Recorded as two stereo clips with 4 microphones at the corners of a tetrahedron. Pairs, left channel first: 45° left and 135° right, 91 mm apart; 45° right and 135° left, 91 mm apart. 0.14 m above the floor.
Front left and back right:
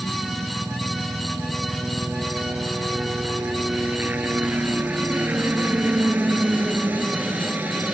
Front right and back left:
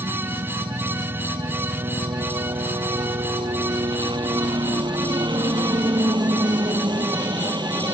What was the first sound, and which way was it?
A helicopter, 155° left.